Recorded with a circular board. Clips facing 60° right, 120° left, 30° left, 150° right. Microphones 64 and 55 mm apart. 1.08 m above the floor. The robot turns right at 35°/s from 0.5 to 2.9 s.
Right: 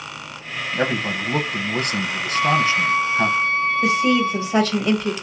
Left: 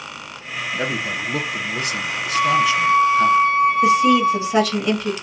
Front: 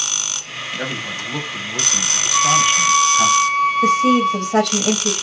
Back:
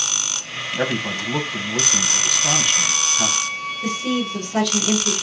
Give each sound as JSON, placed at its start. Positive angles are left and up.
{"t": 0.8, "sound": "a man speaking", "azimuth_deg": -100, "distance_m": 0.8}
{"t": 2.3, "sound": "a flute", "azimuth_deg": 30, "distance_m": 1.9}
{"t": 3.8, "sound": "a woman speaking", "azimuth_deg": 35, "distance_m": 1.4}